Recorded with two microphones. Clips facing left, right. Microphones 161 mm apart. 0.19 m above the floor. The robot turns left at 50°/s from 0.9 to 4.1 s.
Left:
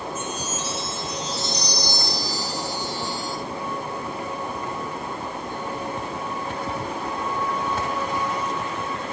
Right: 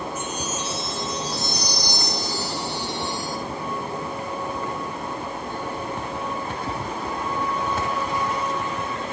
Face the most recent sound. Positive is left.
turn(degrees=-175)